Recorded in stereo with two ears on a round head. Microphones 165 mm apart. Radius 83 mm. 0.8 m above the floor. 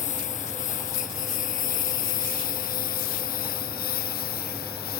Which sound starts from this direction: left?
A lawn mower, at 0.0 s.